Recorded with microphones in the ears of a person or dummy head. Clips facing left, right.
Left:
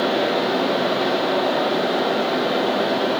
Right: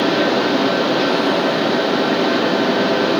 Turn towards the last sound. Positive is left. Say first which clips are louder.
# right 4 dB
turn(degrees=-85)